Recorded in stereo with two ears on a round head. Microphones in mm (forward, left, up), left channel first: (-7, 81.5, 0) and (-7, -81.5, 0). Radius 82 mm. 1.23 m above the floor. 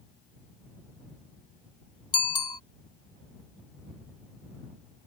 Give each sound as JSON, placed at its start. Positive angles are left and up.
{"t": 2.1, "sound": "a bicycle bell", "side_deg": 25}